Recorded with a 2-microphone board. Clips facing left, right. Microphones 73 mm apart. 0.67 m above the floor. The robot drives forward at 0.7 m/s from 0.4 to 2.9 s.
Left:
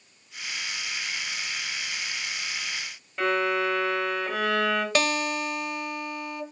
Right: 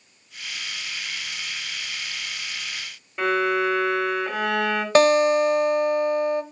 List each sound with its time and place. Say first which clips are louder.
3.2 s a violin: right 3 dB; 5° right (ahead or behind), 3 m
5.0 s a guitar: right 10 dB; 35° right (ahead or behind), 0.8 m